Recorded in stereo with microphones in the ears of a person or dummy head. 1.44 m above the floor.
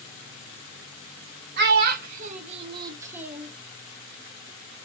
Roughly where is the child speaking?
Right.